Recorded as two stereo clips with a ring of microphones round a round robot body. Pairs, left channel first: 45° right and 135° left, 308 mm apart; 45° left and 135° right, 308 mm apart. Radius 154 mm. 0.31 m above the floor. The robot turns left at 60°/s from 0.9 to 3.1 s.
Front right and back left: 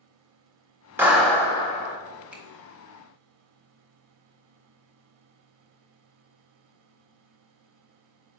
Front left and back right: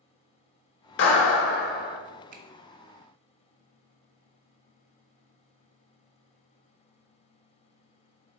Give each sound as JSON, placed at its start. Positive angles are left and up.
{"t": 1.0, "sound": "a clap", "azimuth_deg": 55, "distance_m": 0.8}
{"t": 2.3, "sound": "a finger snap", "azimuth_deg": -145, "distance_m": 0.7}